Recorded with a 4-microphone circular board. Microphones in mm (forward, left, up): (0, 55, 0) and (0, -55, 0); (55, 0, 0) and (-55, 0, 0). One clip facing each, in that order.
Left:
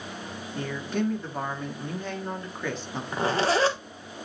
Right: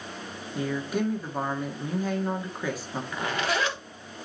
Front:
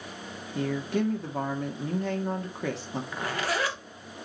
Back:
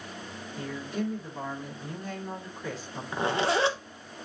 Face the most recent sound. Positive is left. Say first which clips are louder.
# left 5 dB, back 5 dB
turn(degrees=130)